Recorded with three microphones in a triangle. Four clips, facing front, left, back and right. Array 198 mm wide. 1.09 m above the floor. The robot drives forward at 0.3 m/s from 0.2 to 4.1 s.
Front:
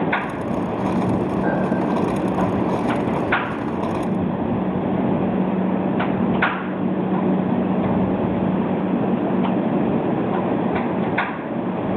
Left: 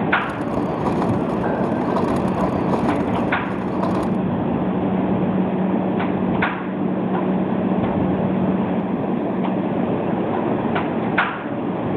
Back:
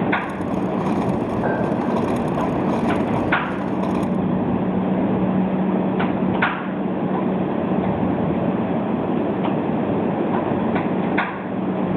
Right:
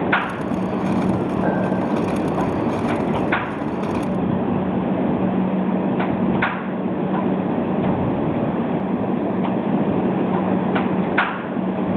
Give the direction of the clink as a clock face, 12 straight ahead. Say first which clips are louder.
Right 1 dB, even; 5 o'clock.